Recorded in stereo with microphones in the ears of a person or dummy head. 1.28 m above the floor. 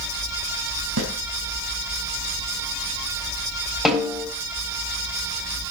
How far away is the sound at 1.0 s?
About 3.5 m.